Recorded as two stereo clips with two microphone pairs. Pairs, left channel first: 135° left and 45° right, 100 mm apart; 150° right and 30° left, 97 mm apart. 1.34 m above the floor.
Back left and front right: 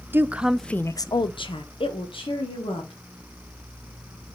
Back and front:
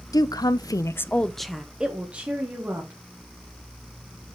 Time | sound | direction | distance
0.1 | a woman speaking | 110° right | 0.7 m